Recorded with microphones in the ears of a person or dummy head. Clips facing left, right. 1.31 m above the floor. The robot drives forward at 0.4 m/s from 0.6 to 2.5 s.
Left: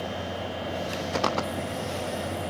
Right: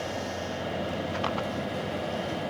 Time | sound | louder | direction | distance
1.1 | footsteps | left 3 dB | 60° left (ahead or behind) | ?